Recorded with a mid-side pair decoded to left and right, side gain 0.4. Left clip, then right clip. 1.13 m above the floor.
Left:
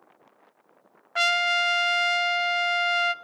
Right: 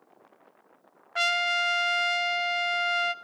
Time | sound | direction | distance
1.1 | a trumpet | 25° left | 0.7 m